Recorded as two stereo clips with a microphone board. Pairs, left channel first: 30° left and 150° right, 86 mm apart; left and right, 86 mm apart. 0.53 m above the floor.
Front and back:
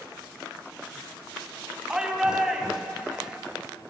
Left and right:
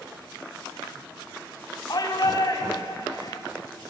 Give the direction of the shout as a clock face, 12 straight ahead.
8 o'clock.